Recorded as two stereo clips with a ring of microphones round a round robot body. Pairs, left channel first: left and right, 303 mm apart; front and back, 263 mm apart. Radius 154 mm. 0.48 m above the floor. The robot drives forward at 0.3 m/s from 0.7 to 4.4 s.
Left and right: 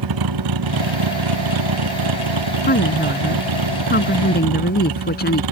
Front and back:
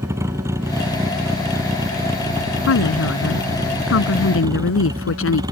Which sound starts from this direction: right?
A vehicle, at 0.0 s.